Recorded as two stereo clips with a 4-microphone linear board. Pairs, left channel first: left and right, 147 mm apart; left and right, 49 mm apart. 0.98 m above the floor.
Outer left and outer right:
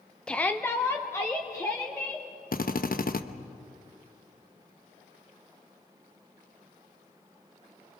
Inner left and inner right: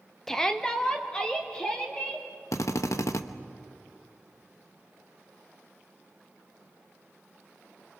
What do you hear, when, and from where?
0.3 s a shout: 5° left (ahead or behind), 0.6 m; by 2.3 s 20° left (ahead or behind), 3 m
2.5 s a drill: 70° left (ahead or behind), 0.9 m